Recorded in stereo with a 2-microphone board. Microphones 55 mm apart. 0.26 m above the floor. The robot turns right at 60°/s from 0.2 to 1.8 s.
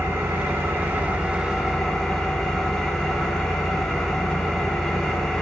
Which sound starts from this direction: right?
An engine running, at 0.0 s.